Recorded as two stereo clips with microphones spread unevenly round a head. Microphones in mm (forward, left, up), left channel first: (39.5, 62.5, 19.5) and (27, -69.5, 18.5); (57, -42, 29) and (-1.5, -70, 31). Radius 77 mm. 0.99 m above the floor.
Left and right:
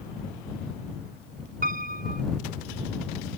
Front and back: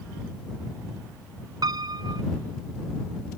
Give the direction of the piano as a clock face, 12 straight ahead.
5 o'clock.